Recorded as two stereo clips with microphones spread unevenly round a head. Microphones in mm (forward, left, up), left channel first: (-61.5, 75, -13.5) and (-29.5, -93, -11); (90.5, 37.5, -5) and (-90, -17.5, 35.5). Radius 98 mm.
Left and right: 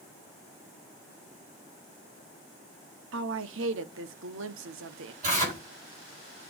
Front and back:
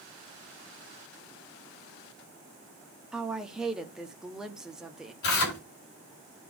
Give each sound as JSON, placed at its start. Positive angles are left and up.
{"t": 3.1, "sound": "a woman speaking", "azimuth_deg": -75, "distance_m": 1.0}
{"t": 5.2, "sound": "tearing paper", "azimuth_deg": -20, "distance_m": 6.0}